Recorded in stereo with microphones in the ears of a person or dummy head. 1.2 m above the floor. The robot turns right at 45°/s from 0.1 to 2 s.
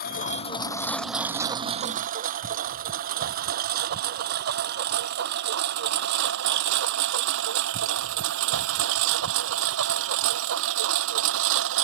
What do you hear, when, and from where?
0.0 s a lawn mower: 45° left (ahead or behind); by 11.8 s 80° right